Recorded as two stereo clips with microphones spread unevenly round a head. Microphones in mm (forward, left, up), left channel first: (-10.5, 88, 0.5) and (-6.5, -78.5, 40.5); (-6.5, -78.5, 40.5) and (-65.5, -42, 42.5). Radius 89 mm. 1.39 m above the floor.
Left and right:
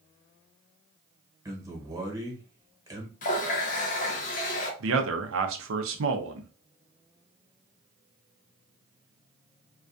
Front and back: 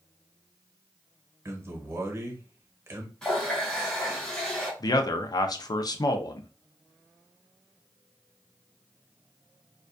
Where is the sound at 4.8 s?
65° right, 0.5 m.